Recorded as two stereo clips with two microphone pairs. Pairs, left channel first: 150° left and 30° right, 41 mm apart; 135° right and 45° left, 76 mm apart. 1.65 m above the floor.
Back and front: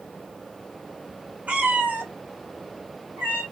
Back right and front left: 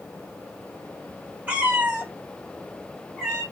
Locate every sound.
1.5 s a cat meowing: 10° right, 1.1 m; by 3.4 s 25° right, 2 m